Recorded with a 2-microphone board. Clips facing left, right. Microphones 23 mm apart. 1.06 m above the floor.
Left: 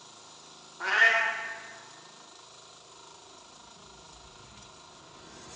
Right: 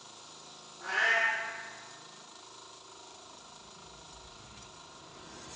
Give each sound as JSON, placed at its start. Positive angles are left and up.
{"t": 0.8, "sound": "a cat meowing", "side_deg": 65, "distance_m": 1.3}